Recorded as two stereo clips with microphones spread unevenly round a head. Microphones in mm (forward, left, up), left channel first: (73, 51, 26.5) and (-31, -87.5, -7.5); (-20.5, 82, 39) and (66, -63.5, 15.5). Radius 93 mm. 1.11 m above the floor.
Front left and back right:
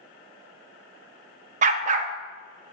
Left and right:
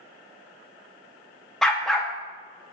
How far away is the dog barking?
About 0.5 m.